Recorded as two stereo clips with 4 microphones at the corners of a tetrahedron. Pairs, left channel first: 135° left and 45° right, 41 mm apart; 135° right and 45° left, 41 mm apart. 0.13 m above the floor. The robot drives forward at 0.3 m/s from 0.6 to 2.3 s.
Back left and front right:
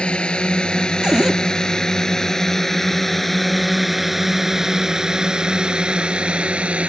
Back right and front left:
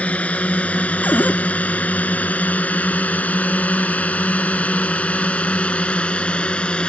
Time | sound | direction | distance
0.0 | a drone | 175° right | ?
1.0 | a cupboard door | 110° right | ?